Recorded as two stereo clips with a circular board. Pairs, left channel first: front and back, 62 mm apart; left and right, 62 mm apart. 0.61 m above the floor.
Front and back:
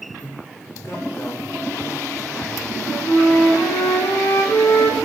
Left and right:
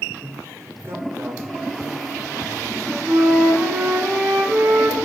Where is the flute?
25° right, 6 m.